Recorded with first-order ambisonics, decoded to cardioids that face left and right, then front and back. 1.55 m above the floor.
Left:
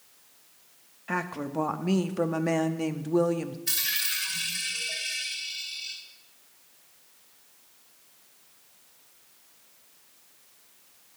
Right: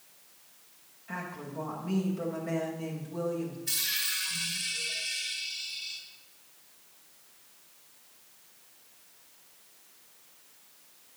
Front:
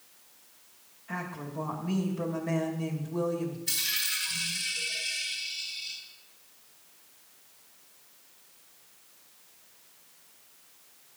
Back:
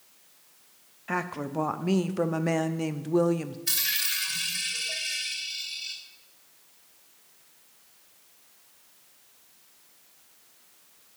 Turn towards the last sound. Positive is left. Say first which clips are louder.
# left 2 dB, back 3 dB
turn(degrees=155)